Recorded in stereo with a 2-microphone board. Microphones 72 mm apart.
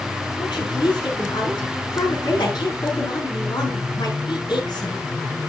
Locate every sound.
0.4 s a woman speaking: 80° left, 5.5 m